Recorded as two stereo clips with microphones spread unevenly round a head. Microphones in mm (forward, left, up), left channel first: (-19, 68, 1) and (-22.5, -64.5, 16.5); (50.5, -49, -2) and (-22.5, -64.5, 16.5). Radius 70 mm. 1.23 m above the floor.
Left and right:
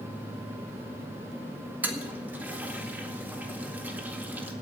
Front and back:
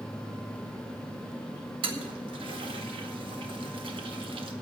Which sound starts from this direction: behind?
A toilet flushing, at 1.8 s.